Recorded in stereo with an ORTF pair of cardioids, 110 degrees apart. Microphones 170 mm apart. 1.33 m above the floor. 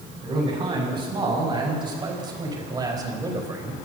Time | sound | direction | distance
0.2 | a man speaking | 30° right | 7.5 m